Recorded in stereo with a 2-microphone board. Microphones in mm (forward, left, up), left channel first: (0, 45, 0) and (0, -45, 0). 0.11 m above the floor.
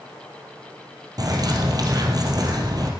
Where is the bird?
50° right (ahead or behind), 3 m.